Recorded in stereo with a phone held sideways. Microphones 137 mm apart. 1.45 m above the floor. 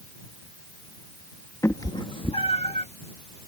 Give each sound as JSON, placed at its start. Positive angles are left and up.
{"t": 1.6, "sound": "a cat meowing", "side_deg": 20}